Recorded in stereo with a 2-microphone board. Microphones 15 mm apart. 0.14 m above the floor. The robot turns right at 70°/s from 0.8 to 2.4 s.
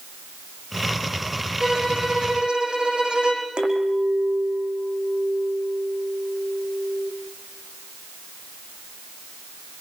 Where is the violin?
140° right, 8 m; by 3.5 s 80° right, 8 m.